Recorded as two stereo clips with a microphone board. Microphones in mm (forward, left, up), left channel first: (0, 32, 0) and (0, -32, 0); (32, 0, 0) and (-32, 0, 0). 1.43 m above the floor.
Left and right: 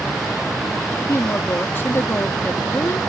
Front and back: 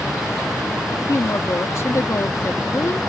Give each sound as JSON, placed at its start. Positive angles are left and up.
{"t": 0.9, "sound": "a woman speaking", "azimuth_deg": 40}